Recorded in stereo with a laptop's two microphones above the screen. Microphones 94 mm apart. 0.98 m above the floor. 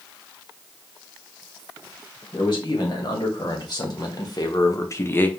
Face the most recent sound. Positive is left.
turn(degrees=15)  # may be behind; listen again after turning